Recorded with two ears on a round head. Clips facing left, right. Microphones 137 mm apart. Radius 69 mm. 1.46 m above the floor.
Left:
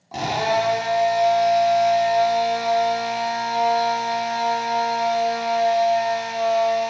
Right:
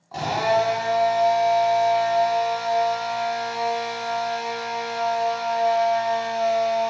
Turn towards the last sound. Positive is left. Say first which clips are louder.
# even
turn(degrees=25)  # may be behind; listen again after turning